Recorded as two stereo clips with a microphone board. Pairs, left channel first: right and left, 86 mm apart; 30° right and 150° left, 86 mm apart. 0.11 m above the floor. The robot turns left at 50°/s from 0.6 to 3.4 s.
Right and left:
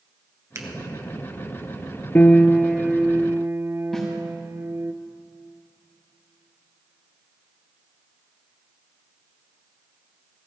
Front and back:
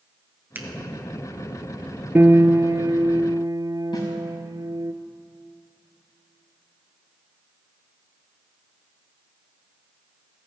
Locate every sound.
0.6 s a finger snap: 105° left, 1.4 m; by 0.7 s 100° left, 1.4 m
2.1 s a piano: 150° right, 0.5 m; by 4.9 s 145° left, 0.5 m
3.9 s a snare drum: straight ahead, 6 m